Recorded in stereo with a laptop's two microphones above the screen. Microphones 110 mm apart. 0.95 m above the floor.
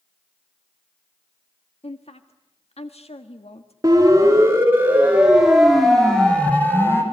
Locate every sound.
1.8 s a woman speaking: 70° left (ahead or behind), 1.5 m
3.8 s a siren: 30° right (ahead or behind), 4 m; by 7.0 s 20° left (ahead or behind), 3.5 m